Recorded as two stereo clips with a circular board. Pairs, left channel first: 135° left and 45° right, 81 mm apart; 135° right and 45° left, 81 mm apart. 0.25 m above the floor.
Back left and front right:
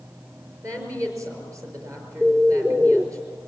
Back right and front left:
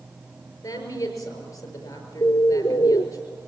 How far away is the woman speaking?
About 5.5 m.